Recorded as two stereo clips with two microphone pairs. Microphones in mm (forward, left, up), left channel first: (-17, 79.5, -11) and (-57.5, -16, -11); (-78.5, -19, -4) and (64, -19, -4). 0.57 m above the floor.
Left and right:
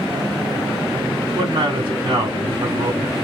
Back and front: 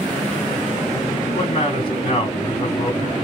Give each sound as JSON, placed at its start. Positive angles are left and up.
{"t": 1.4, "sound": "a man speaking", "azimuth_deg": -130, "distance_m": 2.0}